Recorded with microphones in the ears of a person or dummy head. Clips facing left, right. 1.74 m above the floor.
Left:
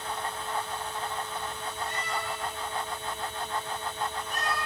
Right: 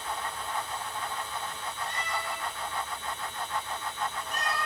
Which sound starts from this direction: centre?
A cat meowing, at 1.9 s.